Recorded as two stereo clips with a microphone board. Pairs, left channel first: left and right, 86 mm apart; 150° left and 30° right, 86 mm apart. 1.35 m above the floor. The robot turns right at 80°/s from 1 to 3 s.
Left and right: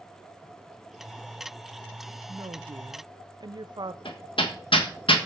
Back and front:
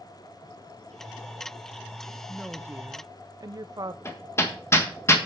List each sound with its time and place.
2.3 s a woman speaking: 120° right, 0.7 m; by 4.0 s 65° right, 0.7 m
4.0 s hammering: 90° left, 1.5 m